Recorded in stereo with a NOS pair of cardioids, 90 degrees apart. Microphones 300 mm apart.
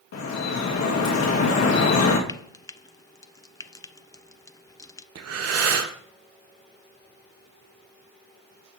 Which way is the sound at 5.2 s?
55° right.